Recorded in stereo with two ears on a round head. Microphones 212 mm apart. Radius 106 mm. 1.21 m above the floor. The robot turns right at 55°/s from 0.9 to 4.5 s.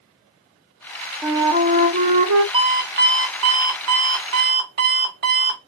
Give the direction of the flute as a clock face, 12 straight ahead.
6 o'clock.